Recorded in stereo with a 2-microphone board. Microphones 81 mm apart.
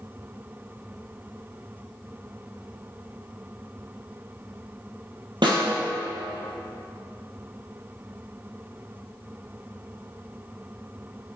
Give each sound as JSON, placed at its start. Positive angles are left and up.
{"t": 5.4, "sound": "a snare drum", "side_deg": -70, "distance_m": 4.0}